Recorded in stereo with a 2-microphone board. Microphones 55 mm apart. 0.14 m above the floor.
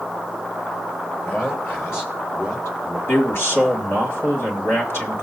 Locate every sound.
1.3 s a man speaking: 35° left (ahead or behind), 3.5 m; by 3.0 s 60° left (ahead or behind), 4 m
3.1 s a man speaking: 45° left (ahead or behind), 2.5 m